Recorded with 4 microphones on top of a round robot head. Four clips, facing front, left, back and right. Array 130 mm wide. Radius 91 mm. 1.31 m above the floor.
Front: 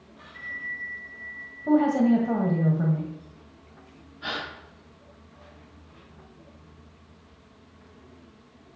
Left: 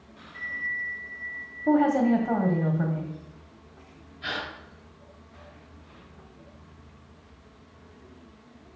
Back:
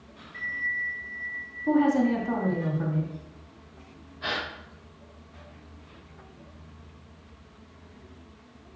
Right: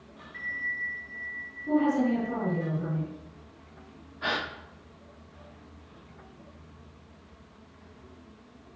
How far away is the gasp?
About 1.2 m.